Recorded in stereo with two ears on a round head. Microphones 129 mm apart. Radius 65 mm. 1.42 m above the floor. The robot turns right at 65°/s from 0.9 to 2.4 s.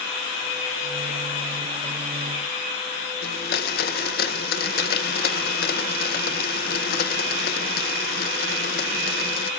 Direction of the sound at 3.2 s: 80° left.